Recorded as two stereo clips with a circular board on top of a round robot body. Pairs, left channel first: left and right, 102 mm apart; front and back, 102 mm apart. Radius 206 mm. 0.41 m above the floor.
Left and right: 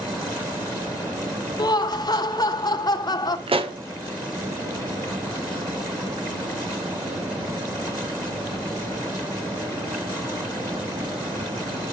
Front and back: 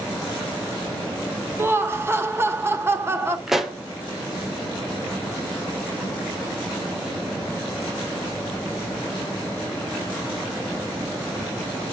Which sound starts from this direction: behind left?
Laughter, at 1.6 s.